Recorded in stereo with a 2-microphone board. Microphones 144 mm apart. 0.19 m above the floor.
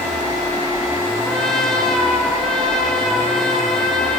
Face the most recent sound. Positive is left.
turn(degrees=5)  # may be behind; listen again after turning